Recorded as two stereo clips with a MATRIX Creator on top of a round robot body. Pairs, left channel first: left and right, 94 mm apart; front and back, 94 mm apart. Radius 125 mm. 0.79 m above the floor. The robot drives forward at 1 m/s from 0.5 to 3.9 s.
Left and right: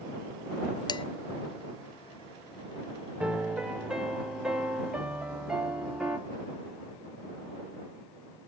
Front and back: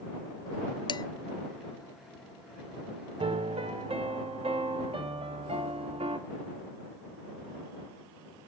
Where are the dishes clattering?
40° left, 0.6 m; by 1.1 s 55° left, 0.5 m.